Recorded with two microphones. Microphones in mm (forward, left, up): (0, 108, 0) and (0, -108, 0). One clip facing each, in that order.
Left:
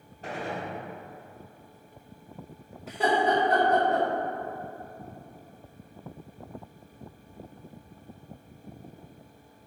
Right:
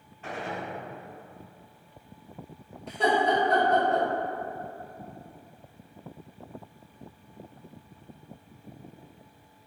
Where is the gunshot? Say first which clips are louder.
Left 1 dB; 35° left (ahead or behind), 1.0 m.